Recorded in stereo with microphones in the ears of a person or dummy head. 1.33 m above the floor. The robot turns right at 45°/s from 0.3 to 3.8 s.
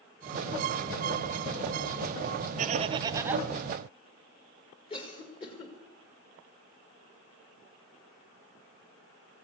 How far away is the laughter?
About 1.0 m.